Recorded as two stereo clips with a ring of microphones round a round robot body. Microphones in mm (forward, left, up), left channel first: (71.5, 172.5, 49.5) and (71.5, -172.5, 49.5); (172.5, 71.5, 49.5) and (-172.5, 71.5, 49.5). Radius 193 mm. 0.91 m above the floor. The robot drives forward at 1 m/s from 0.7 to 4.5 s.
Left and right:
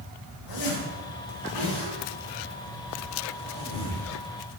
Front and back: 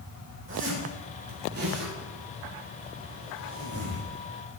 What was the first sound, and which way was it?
A zipper, 125° left.